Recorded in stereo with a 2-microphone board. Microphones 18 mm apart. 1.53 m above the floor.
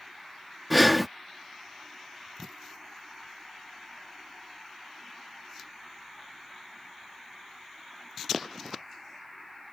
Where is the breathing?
Centre (ahead or behind).